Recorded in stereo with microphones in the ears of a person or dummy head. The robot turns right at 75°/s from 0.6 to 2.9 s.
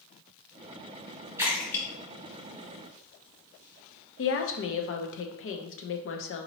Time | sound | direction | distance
1.4 | a splash | 15° right (ahead or behind) | 1.6 m
4.2 | a woman speaking | 60° left (ahead or behind) | 0.7 m